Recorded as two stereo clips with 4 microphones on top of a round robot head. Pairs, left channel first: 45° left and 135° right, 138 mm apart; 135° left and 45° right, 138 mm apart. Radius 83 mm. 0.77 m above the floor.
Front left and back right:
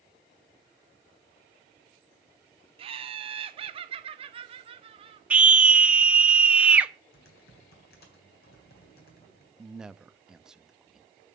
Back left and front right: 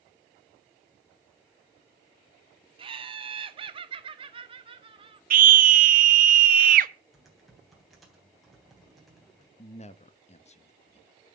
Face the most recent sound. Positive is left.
turn(degrees=140)